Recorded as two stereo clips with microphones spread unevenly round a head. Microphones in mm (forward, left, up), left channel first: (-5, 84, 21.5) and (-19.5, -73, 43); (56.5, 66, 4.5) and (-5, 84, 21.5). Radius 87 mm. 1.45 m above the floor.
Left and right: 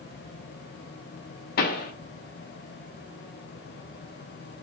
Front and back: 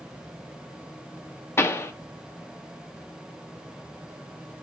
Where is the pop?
45° left, 0.5 m.